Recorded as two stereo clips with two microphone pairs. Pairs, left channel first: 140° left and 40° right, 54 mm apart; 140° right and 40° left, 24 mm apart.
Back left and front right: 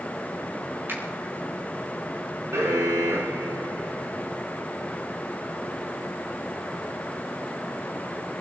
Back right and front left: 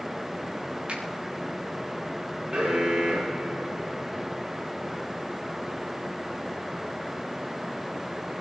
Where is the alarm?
10° right, 6.5 m.